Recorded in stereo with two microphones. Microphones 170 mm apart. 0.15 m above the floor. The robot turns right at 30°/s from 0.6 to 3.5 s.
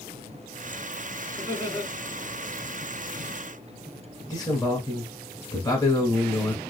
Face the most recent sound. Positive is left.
turn(degrees=20)  # may be behind; listen again after turning